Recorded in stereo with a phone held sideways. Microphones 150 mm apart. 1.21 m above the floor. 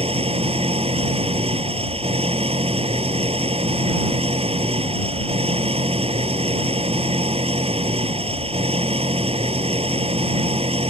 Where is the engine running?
40° right (ahead or behind).